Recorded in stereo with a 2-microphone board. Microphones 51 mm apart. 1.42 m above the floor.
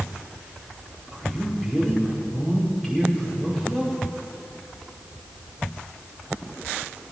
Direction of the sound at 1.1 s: 10° left (ahead or behind).